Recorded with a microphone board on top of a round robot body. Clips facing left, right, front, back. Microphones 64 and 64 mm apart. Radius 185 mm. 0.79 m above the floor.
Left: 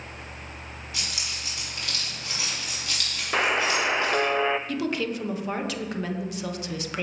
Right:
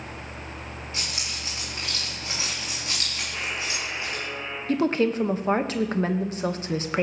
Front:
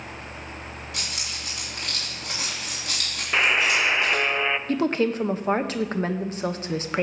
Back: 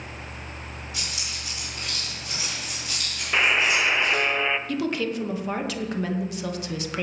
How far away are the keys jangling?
About 6.5 m.